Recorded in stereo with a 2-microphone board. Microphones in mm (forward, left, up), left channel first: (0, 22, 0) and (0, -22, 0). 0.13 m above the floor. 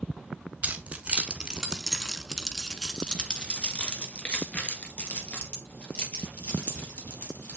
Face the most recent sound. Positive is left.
turn(degrees=45)  # may be behind; listen again after turning